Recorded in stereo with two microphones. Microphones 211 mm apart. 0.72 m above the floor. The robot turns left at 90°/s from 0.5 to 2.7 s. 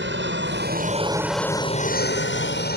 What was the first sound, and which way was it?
An aircraft, 60° right (ahead or behind).